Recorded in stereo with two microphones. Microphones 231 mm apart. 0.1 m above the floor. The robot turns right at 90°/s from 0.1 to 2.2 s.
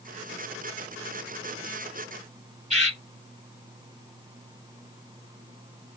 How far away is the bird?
About 2.5 m.